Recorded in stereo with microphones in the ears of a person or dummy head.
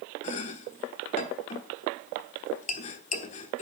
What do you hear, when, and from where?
0.2 s chopping: 45° left (ahead or behind), 1.2 m